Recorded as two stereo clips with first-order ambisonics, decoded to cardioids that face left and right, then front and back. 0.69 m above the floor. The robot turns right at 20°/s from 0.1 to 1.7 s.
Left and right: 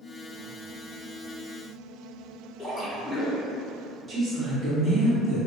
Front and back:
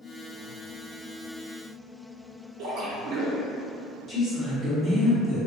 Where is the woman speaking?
55° right, 0.8 m.